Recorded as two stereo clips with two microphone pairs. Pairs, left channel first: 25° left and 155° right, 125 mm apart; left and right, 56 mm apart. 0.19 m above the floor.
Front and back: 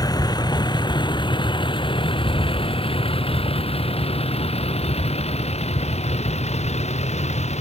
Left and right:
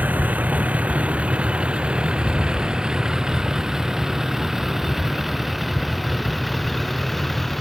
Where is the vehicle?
30° right; by 7.6 s straight ahead.